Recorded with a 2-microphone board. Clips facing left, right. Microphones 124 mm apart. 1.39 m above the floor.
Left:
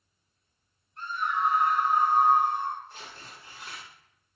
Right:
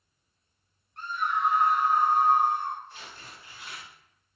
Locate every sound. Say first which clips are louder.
1.0 s a scream: even; 70° right (ahead or behind), 1.4 m
2.9 s tearing paper: left 1 dB; 35° left (ahead or behind), 1.0 m